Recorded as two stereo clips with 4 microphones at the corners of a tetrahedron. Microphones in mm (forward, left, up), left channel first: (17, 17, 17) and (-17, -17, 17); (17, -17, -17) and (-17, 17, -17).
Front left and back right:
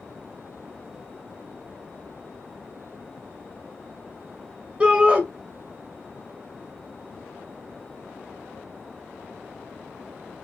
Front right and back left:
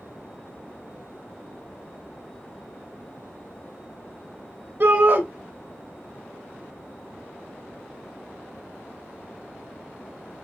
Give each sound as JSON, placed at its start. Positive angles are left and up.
{"t": 4.8, "sound": "a shout", "azimuth_deg": 155, "distance_m": 1.8}